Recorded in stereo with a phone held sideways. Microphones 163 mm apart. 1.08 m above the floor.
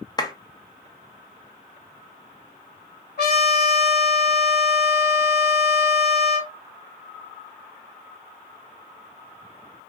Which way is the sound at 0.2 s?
25° left (ahead or behind).